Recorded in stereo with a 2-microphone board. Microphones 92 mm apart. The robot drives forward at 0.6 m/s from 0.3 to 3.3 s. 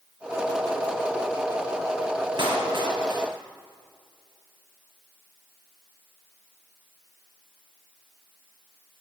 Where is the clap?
60° right (ahead or behind), 2.5 m; by 3.2 s 50° right (ahead or behind), 3 m.